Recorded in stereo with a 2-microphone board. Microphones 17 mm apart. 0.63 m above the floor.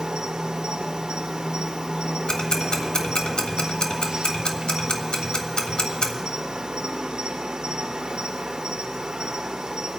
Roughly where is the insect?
Right.